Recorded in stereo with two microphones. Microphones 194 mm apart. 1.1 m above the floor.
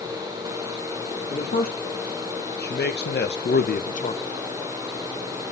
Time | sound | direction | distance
1.3 | a man speaking | 50° left (ahead or behind) | 2.0 m